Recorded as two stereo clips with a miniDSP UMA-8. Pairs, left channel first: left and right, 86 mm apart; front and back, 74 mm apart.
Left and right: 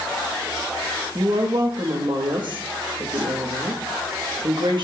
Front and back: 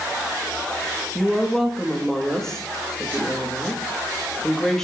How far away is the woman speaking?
About 1.2 m.